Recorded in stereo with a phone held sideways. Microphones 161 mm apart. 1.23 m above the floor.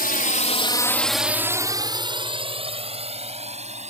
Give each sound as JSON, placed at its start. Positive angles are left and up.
{"t": 0.0, "sound": "a drone", "side_deg": 65}